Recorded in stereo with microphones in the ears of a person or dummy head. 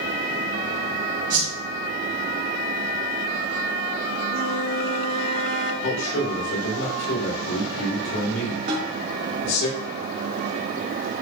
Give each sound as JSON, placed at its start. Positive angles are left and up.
{"t": 1.3, "sound": "a whoosh", "side_deg": -45, "distance_m": 2.5}
{"t": 4.3, "sound": "a flute", "side_deg": -70, "distance_m": 3.0}
{"t": 5.8, "sound": "a man speaking", "side_deg": 85, "distance_m": 4.0}
{"t": 8.7, "sound": "a snare drum", "side_deg": -50, "distance_m": 2.5}